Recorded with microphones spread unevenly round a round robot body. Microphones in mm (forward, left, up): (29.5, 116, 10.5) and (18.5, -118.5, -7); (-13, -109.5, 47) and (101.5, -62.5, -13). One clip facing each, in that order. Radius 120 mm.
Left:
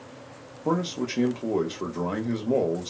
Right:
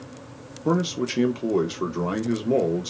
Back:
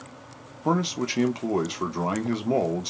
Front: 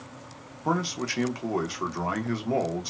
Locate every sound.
0.7 s a man speaking: 60° right, 0.5 m